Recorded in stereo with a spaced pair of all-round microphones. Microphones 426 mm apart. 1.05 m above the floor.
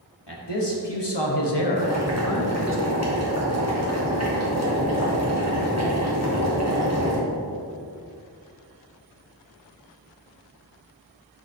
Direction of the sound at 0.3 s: 75° left (ahead or behind).